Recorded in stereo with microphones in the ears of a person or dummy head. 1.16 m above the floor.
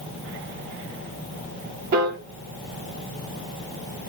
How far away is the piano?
About 0.7 m.